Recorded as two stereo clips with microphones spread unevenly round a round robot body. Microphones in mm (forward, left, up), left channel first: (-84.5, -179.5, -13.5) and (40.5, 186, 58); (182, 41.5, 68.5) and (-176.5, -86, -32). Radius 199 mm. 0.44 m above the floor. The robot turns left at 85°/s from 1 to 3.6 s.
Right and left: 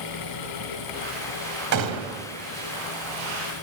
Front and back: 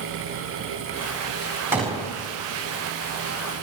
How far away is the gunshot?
About 3.5 m.